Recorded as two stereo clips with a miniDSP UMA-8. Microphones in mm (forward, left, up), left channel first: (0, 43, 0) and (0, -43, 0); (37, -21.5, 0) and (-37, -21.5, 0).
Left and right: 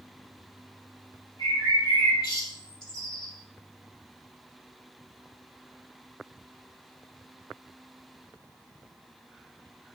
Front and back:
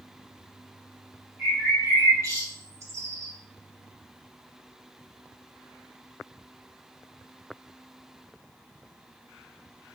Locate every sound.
1.4 s a bird: 130° left, 4 m